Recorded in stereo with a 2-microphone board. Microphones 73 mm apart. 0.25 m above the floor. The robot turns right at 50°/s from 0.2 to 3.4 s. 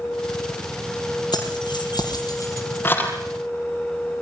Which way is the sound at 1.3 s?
75° left (ahead or behind).